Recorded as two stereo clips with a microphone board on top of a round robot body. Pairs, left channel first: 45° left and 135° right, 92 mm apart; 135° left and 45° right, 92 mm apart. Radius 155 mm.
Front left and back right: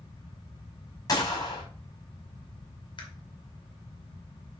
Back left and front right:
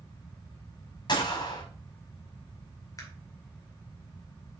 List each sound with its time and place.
1.1 s a gunshot: 95° left, 4.5 m
3.0 s a camera shutter: 80° left, 2.5 m